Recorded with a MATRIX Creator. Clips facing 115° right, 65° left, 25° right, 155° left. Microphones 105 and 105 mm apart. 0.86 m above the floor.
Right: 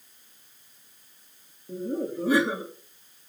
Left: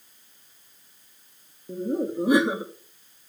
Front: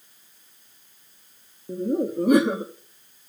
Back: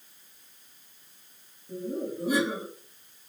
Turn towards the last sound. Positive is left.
turn(degrees=0)